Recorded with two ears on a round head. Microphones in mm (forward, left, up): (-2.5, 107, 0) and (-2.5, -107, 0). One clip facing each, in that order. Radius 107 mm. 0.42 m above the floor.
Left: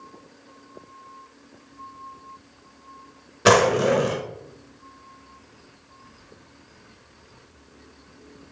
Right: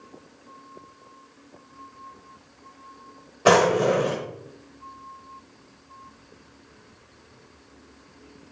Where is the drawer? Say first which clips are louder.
Left 1 dB; 25° left (ahead or behind), 0.6 m.